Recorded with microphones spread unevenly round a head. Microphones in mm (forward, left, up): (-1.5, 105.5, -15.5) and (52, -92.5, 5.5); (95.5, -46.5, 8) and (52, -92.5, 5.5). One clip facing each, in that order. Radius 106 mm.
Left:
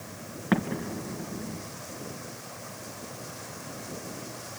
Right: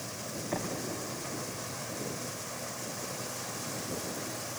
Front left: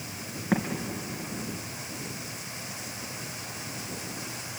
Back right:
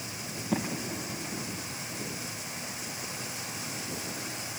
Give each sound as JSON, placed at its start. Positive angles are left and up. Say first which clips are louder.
{"t": 0.5, "sound": "an explosion", "louder": "left 9 dB, front left 3 dB", "azimuth_deg": 110, "distance_m": 2.5}